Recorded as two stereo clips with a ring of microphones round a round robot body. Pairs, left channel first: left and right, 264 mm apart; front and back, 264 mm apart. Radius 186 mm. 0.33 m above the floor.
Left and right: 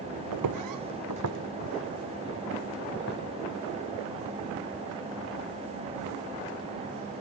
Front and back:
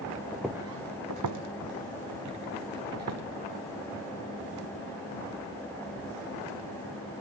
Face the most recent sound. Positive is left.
turn(degrees=155)